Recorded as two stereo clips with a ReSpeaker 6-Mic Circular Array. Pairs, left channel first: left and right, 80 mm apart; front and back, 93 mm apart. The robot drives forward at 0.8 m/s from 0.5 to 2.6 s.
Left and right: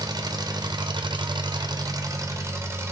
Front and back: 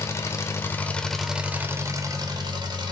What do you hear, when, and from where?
0.0 s an engine running: 60° right, 1.1 m; by 2.9 s 145° right, 1.5 m